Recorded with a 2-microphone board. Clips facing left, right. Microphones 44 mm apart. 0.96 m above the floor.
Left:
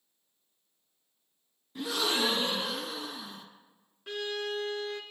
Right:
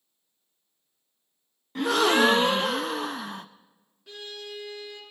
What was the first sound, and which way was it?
A gasp, 60° right (ahead or behind).